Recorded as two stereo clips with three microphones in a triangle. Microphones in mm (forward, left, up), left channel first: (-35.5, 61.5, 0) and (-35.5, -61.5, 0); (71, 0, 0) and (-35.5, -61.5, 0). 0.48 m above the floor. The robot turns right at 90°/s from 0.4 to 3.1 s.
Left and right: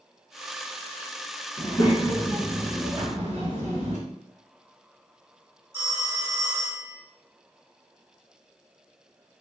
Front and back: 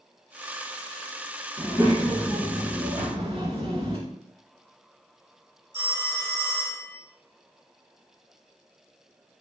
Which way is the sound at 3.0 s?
130° right.